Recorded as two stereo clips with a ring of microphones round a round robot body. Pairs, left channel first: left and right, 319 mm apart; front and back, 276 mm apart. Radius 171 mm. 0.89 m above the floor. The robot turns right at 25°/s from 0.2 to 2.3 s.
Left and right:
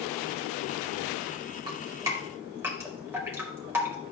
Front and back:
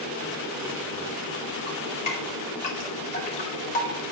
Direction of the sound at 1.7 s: 35° right.